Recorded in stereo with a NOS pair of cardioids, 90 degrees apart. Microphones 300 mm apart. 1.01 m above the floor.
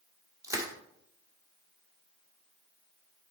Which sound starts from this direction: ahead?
Crushing, at 0.4 s.